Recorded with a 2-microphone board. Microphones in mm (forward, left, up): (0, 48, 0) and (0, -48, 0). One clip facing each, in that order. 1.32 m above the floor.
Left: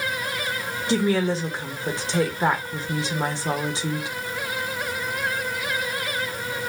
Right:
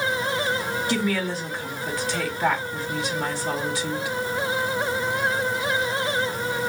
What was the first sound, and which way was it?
A woman speaking, 25° left (ahead or behind).